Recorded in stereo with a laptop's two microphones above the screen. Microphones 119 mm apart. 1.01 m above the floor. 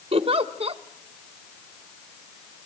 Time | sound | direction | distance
0.1 | a giggle | 55° right (ahead or behind) | 1.1 m